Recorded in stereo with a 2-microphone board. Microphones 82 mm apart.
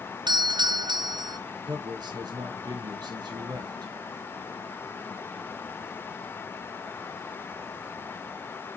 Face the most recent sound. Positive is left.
turn(degrees=-55)  # may be behind; listen again after turning